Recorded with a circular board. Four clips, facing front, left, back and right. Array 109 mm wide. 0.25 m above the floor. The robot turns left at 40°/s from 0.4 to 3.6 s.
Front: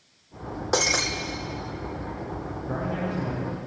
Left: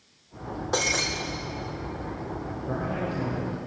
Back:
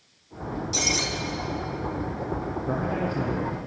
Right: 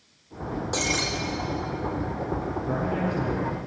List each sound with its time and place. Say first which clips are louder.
0.7 s breaking glass: left 2 dB, front 7 dB; 10° left, 2.5 m; by 1.1 s 5° right, 2.5 m
2.7 s a man speaking: right 2 dB, back 1 dB; straight behind, 7.5 m; by 3.6 s 145° left, 7.5 m